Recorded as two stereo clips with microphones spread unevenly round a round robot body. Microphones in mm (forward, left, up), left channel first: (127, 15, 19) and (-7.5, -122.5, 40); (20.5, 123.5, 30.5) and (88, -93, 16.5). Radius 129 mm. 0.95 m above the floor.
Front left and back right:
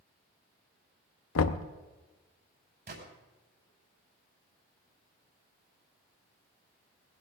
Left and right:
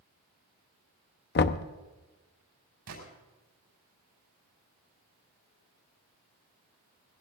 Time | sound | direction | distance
1.4 | knocking | 65° left | 0.8 m
2.9 | a gunshot | 100° right | 5.5 m